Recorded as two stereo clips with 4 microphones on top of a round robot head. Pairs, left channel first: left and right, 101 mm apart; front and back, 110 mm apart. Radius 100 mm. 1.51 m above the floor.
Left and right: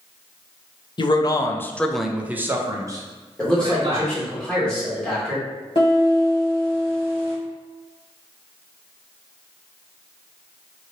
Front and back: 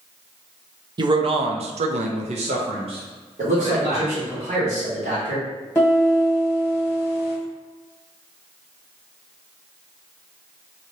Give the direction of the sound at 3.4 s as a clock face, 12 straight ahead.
6 o'clock.